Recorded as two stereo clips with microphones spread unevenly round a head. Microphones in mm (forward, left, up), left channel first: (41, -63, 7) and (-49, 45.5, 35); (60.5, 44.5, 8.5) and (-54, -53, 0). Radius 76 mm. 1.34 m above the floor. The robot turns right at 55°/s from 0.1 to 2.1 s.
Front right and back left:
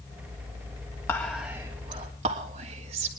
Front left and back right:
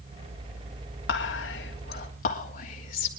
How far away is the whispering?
About 3 m.